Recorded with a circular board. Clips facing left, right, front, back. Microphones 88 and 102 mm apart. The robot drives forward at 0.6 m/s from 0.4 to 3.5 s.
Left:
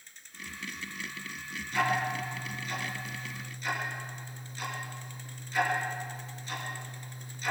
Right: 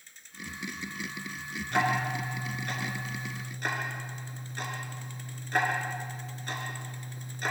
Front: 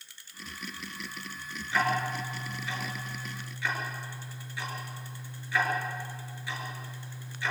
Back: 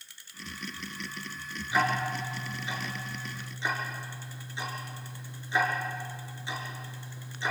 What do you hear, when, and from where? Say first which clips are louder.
1.7 s ticking: right 1 dB, back 1 dB; 105° right, 5.5 m; by 7.5 s 115° right, 6 m